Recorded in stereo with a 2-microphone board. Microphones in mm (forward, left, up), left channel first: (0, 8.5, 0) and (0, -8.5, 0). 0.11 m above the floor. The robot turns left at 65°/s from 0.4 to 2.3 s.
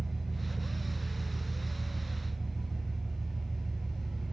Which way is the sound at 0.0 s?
160° left.